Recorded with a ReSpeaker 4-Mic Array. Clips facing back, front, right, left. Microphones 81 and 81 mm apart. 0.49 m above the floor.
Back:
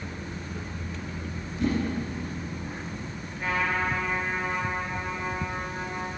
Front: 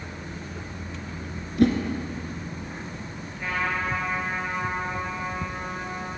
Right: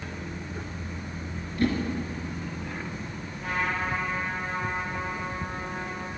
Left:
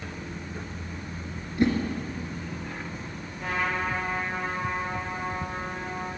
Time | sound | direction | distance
1.6 | a whoosh | 20° left | 1.9 m
3.4 | a trumpet | 100° left | 6 m